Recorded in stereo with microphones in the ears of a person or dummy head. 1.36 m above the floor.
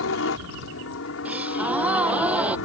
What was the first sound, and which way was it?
A helicopter, 70° left (ahead or behind).